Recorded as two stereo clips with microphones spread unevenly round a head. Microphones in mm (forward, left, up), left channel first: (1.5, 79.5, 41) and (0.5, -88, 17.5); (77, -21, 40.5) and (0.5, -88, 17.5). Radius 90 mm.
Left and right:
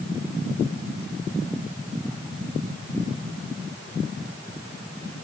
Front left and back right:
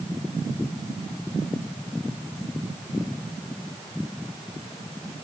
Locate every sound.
Only background noise.